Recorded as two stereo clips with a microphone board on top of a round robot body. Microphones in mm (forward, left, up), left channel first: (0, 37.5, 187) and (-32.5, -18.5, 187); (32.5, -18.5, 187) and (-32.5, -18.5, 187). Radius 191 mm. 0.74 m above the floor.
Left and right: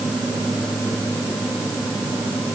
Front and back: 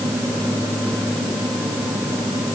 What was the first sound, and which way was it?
Only background noise.